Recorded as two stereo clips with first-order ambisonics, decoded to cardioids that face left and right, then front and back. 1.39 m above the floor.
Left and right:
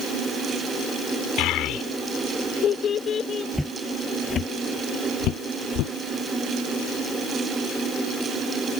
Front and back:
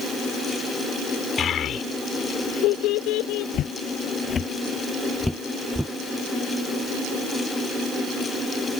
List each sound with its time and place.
1.4 s a child speaking: 60° left; by 3.4 s 25° left
3.5 s footsteps: 5° left; by 5.9 s 90° left